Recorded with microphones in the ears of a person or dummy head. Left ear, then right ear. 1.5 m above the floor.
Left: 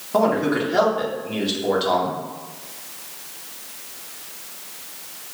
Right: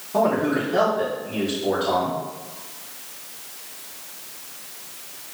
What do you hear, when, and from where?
0.1 s a man speaking: 35° left (ahead or behind), 1.3 m